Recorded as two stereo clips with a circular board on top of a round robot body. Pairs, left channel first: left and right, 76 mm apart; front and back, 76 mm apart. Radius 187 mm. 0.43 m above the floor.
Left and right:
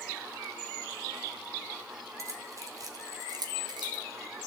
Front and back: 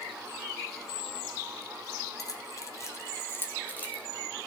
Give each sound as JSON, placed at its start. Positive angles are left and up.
{"t": 2.2, "sound": "keys jangling", "azimuth_deg": -40, "distance_m": 2.5}